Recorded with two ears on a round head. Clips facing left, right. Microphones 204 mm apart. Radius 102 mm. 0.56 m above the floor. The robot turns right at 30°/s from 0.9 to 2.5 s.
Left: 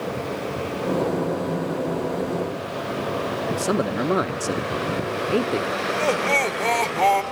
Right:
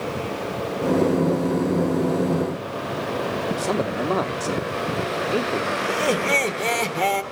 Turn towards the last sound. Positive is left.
turn(degrees=-20)  # may be behind; listen again after turning